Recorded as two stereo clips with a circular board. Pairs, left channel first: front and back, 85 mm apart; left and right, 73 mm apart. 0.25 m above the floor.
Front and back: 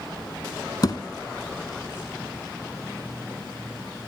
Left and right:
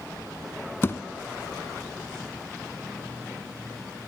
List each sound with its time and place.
0.8 s a thud: 35° left, 0.9 m